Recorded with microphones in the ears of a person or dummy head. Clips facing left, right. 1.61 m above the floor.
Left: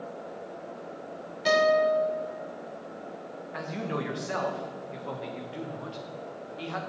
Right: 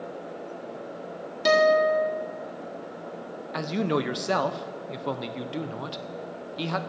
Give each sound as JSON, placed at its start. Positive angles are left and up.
{"t": 1.4, "sound": "a guitar", "side_deg": -55, "distance_m": 1.7}
{"t": 3.5, "sound": "a man speaking", "side_deg": -55, "distance_m": 0.5}